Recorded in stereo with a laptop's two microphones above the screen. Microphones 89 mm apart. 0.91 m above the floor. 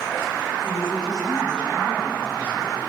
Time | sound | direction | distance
0.6 | a woman speaking | 5° left (ahead or behind) | 6.5 m